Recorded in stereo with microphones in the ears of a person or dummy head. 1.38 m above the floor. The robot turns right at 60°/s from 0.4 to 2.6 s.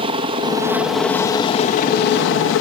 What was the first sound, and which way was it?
A helicopter, 30° right.